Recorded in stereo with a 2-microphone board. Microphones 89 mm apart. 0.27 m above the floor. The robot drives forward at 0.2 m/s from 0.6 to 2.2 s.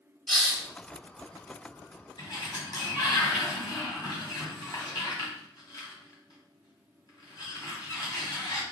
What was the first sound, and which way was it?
A hiss, 10° left (ahead or behind).